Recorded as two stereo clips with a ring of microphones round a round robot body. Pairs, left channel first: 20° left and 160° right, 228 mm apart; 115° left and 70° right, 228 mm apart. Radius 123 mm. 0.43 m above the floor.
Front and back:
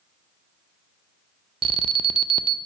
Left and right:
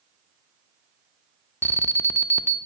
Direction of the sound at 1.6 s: Straight behind.